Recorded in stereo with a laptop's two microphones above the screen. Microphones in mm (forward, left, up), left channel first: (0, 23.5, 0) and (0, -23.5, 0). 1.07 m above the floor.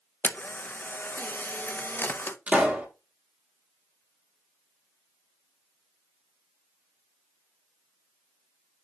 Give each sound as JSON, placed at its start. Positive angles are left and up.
{"t": 0.2, "sound": "a camera shutter", "side_deg": 40, "distance_m": 0.6}
{"t": 2.5, "sound": "a pop", "side_deg": -25, "distance_m": 1.5}